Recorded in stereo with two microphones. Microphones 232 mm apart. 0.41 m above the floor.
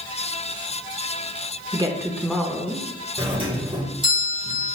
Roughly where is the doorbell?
Right.